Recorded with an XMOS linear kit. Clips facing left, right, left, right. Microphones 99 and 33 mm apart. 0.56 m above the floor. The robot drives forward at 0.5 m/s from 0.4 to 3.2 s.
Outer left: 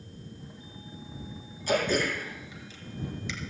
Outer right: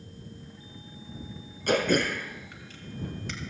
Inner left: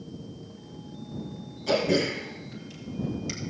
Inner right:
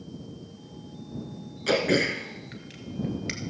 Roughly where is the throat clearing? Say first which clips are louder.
Outer right 2 dB, inner right 1 dB; right.